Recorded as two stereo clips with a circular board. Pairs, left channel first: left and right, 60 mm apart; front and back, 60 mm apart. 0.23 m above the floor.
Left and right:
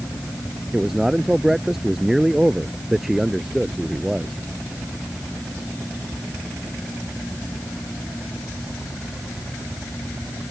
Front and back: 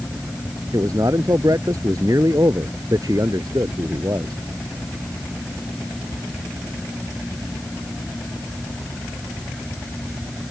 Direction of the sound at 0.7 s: 170° right.